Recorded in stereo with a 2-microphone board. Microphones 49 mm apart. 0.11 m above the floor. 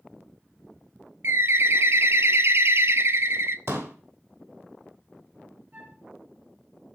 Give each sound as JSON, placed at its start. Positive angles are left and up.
{"t": 1.2, "sound": "a bird", "side_deg": -60, "distance_m": 0.6}
{"t": 3.7, "sound": "a pop", "side_deg": -60, "distance_m": 2.5}
{"t": 5.7, "sound": "a flute", "side_deg": -45, "distance_m": 2.5}